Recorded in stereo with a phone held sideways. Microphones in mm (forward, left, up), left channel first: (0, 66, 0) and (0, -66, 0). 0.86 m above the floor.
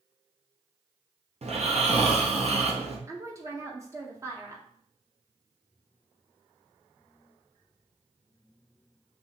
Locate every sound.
1.4 s snoring: 55° right (ahead or behind), 0.8 m
3.1 s a woman speaking: 25° right (ahead or behind), 0.7 m